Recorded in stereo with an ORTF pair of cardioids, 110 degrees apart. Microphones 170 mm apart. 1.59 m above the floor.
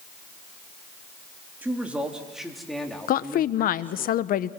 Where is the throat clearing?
I don't hear throat clearing.